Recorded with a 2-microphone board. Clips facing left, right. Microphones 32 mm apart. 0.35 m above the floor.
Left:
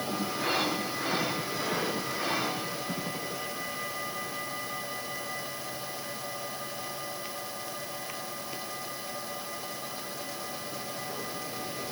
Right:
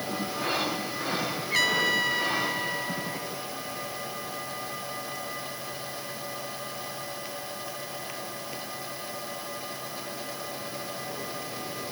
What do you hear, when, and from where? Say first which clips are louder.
1.5 s a trumpet: right 7 dB; 80° right